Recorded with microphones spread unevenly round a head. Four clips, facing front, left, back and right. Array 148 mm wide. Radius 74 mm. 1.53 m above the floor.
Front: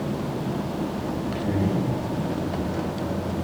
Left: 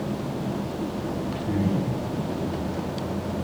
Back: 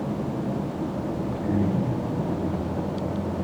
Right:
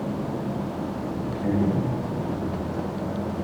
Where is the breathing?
80° right, 3.5 m.